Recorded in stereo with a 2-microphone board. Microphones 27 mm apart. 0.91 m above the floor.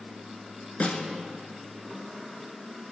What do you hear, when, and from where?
0.8 s a snare drum: 60° left (ahead or behind), 2 m